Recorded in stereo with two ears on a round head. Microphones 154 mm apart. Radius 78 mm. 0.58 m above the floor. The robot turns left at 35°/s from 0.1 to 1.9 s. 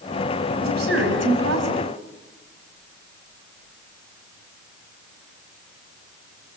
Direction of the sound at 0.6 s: 65° right.